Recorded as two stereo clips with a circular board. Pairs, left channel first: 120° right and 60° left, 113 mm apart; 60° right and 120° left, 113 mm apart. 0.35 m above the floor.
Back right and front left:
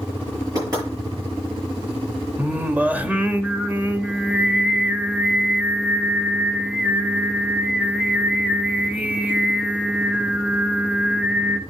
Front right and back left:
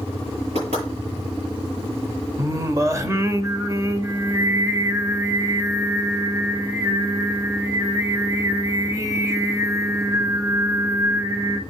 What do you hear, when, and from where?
0.6 s knocking: 115° left, 7.5 m
2.4 s singing: 120° left, 0.7 m